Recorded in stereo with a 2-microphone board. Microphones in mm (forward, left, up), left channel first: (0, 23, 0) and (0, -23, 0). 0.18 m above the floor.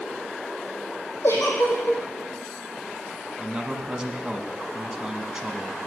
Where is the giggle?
60° left (ahead or behind), 3 m.